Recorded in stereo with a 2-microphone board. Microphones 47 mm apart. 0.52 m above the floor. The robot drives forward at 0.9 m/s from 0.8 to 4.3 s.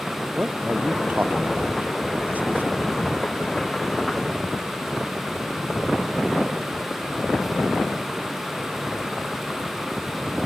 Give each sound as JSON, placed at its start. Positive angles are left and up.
{"t": 0.3, "sound": "a man speaking", "side_deg": -35}